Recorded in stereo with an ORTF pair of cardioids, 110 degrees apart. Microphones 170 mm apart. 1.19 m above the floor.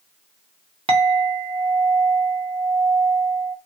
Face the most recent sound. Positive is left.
turn(degrees=-35)